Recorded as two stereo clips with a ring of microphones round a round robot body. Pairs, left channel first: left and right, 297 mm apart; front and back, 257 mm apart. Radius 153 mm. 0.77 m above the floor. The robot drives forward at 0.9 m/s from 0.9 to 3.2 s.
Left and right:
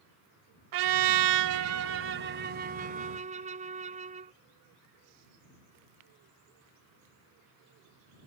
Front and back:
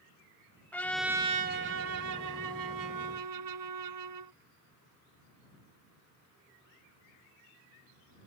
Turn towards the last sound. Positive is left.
turn(degrees=-160)